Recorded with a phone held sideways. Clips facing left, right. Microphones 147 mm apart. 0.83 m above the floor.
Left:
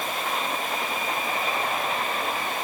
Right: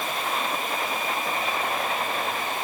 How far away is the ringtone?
No ringtone in this recording.